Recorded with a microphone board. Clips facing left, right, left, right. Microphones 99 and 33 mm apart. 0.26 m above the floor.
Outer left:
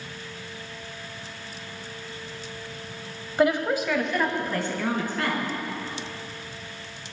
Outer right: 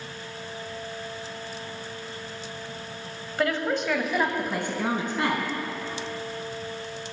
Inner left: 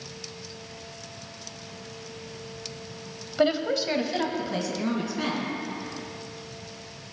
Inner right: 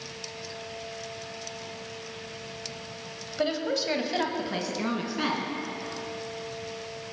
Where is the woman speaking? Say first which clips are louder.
Outer left 4 dB, inner left 4 dB; 20° left (ahead or behind), 1.0 m; by 5.5 s 25° right (ahead or behind), 3 m.